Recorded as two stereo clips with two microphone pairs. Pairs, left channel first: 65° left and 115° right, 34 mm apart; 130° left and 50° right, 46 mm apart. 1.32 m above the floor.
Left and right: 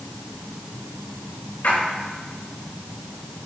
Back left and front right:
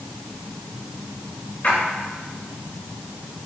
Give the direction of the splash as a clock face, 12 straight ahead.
9 o'clock.